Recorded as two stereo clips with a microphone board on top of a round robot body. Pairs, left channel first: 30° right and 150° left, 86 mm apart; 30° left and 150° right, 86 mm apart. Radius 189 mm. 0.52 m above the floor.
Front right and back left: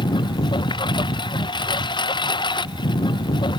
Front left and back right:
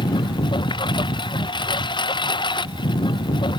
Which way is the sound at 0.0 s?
Straight ahead.